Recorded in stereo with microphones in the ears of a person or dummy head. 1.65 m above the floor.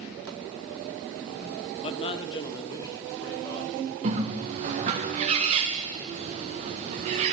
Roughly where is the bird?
Right.